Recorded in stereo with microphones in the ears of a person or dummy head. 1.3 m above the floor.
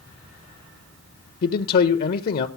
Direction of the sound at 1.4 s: 60° left (ahead or behind).